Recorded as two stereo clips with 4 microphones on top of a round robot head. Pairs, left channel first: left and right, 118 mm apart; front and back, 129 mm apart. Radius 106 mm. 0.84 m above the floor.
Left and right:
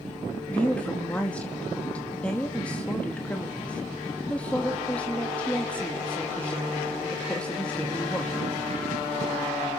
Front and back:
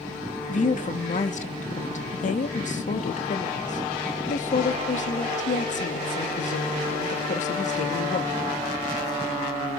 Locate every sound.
0.5 s a woman speaking: 10° left, 1.4 m